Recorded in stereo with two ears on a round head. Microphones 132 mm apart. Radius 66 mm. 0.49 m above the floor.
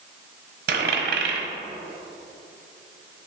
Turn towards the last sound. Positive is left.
turn(degrees=-70)  # may be behind; listen again after turning